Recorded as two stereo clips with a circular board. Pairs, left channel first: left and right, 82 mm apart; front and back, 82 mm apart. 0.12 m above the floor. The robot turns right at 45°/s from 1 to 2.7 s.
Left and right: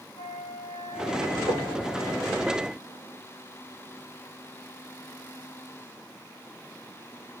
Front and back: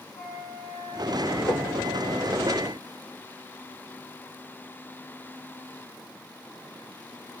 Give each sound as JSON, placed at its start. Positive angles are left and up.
{"t": 0.1, "sound": "a flute", "azimuth_deg": -65, "distance_m": 6.5}
{"t": 1.5, "sound": "knocking", "azimuth_deg": -55, "distance_m": 8.5}